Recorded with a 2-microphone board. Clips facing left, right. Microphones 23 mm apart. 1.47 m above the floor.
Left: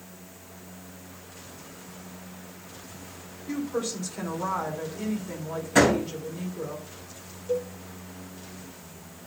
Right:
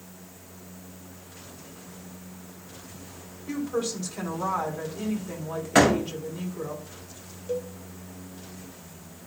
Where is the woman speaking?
60° right (ahead or behind), 4.5 m.